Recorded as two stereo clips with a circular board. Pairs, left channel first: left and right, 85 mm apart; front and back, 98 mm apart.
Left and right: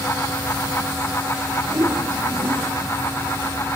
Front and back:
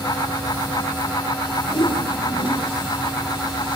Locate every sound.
1.7 s a whoosh: 30° right, 4 m